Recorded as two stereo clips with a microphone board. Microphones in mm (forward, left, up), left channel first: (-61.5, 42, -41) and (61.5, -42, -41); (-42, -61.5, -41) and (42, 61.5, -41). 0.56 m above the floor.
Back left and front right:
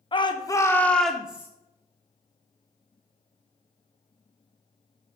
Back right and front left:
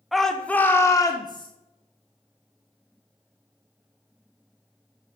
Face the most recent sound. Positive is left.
turn(degrees=-105)